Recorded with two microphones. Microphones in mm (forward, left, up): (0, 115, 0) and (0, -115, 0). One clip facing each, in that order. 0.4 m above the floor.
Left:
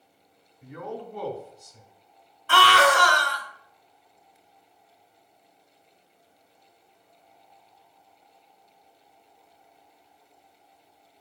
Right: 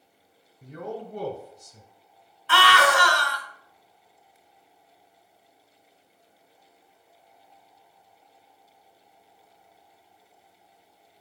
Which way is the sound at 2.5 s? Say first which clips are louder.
Left 2 dB; 45° left (ahead or behind).